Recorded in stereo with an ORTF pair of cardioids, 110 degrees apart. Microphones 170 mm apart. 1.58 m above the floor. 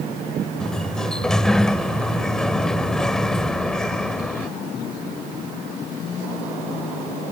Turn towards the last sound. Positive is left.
turn(degrees=5)